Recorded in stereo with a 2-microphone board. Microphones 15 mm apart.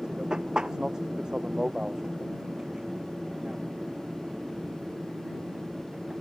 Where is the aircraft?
45° right (ahead or behind); by 6.2 s 35° right (ahead or behind).